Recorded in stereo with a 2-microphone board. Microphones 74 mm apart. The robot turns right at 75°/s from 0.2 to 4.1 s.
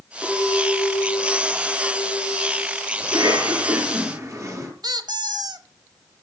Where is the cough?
130° right, 7 m; by 4.7 s 50° right, 7 m.